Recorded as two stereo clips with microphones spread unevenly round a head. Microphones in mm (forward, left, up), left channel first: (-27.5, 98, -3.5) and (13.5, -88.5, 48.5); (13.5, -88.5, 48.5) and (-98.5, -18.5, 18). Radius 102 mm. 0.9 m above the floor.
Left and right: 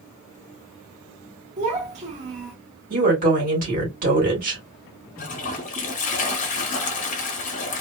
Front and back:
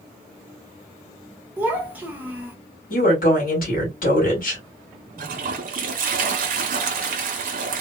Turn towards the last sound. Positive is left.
turn(degrees=160)